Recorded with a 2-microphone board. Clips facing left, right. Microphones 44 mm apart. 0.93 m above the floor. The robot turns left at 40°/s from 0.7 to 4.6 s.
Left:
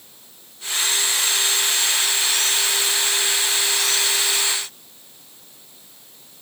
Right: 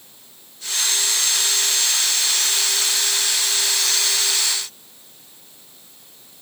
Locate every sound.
Only background noise.